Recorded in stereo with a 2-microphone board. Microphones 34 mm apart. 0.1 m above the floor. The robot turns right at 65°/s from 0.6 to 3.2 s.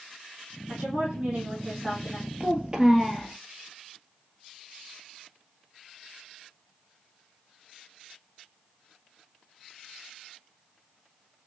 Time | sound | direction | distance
0.7 | a woman speaking | 110° right | 3 m
2.4 | a child speaking | 55° right | 1.1 m